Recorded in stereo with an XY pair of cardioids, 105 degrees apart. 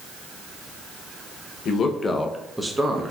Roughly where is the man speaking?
Ahead left.